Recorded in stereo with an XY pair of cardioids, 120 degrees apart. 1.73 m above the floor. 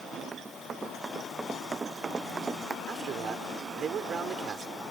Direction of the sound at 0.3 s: 25° right.